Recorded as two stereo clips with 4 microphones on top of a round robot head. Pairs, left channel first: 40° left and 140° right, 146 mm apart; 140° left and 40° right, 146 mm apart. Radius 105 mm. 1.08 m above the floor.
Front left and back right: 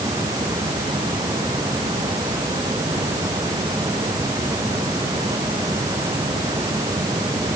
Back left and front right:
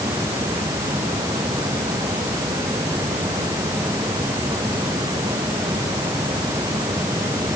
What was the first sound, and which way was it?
Only background noise.